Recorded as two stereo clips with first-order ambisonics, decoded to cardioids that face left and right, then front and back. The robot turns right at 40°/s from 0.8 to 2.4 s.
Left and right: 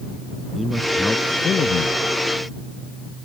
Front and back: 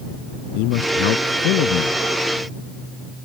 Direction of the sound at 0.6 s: 5° right.